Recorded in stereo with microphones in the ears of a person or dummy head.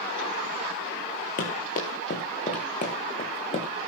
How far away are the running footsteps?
About 5.5 m.